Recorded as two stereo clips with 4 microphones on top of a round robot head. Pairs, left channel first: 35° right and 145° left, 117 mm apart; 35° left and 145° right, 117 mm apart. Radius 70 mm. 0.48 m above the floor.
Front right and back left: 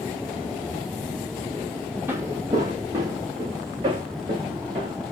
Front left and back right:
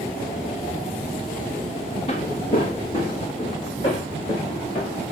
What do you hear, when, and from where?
2.1 s footsteps: 75° left, 0.7 m; by 5.0 s 90° left, 3 m